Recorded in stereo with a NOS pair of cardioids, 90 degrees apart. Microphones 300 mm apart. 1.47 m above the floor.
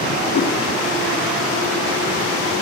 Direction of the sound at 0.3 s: 55° left.